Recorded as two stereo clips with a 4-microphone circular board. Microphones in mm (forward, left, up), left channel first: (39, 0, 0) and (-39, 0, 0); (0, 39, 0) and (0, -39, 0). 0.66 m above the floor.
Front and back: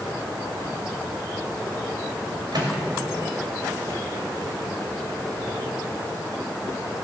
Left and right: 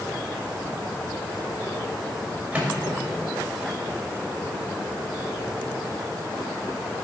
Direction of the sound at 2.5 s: 165° right.